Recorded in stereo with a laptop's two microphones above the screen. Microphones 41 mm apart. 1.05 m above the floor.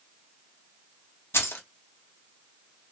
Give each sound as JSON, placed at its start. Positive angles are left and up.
{"t": 1.3, "sound": "keys jangling", "side_deg": 85, "distance_m": 0.7}